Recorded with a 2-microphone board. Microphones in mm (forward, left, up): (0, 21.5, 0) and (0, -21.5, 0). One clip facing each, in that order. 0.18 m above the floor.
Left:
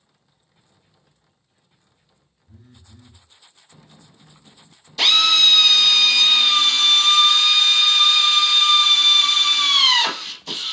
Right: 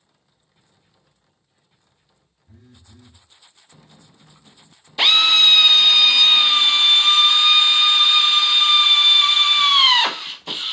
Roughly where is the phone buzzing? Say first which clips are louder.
Even; right.